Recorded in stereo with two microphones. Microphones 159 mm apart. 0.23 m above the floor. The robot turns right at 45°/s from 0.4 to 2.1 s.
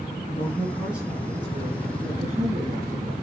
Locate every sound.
0.3 s a woman speaking: 160° left, 3 m; by 3.1 s 125° right, 3 m